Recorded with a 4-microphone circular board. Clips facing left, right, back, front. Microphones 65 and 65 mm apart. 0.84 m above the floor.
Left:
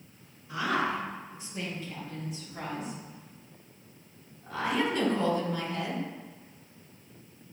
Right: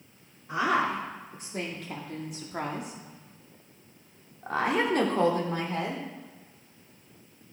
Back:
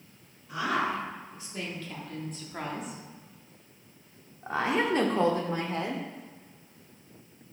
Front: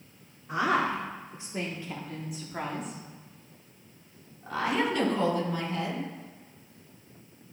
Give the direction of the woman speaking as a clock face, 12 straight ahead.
2 o'clock.